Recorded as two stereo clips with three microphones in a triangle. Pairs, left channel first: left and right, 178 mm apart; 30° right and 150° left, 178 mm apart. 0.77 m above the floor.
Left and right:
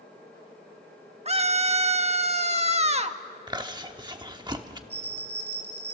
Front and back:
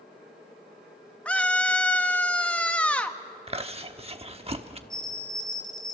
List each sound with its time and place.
1.2 s a scream: 110° right, 1.2 m
3.5 s chewing: 155° right, 1.1 m
4.9 s a bell: 95° right, 3.5 m